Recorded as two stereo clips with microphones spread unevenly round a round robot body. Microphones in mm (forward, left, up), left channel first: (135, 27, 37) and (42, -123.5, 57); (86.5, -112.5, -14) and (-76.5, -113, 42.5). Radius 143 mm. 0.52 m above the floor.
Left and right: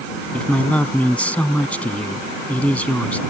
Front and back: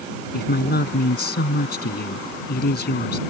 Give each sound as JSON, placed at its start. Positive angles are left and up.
{"t": 0.3, "sound": "a man speaking", "azimuth_deg": -25}